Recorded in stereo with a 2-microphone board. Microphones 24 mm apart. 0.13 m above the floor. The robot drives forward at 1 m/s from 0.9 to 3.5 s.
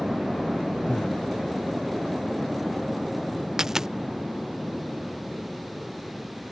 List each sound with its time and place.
0.9 s breathing: 85° left
3.6 s a dropped coin: 20° right (ahead or behind)